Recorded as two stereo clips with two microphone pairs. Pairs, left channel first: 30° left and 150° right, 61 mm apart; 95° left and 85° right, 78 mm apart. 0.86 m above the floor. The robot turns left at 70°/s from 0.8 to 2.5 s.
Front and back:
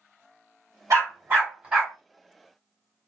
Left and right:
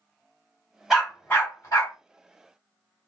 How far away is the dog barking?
About 1.3 m.